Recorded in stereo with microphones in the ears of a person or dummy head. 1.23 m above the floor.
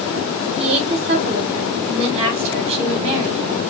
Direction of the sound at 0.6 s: 30° right (ahead or behind).